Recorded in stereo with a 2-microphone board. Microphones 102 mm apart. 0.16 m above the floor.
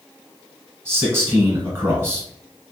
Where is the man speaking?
25° right (ahead or behind), 1.4 m.